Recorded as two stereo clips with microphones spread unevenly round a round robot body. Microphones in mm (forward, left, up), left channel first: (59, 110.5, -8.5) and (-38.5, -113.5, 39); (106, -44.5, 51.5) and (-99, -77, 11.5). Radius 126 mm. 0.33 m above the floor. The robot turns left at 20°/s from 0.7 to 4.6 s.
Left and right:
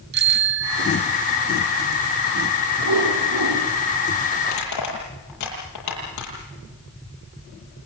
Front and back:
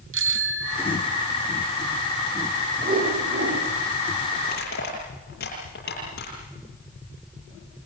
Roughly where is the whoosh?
Behind right.